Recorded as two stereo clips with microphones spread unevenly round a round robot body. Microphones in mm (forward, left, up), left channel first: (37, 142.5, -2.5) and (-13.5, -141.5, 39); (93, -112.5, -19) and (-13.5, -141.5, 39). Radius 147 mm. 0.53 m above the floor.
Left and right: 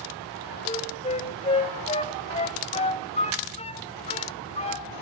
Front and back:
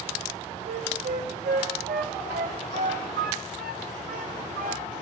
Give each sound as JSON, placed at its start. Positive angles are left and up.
{"t": 0.7, "sound": "a flute", "azimuth_deg": 150, "distance_m": 1.7}